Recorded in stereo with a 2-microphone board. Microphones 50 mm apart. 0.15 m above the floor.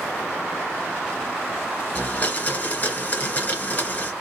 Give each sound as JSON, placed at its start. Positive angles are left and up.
{"t": 1.9, "sound": "a blender", "side_deg": 30, "distance_m": 1.4}